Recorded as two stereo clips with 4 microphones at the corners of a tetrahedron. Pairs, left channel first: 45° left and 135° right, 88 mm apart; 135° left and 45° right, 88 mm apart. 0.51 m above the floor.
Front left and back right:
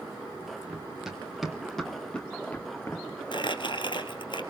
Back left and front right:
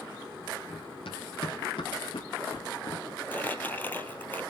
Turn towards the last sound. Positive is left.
turn(degrees=65)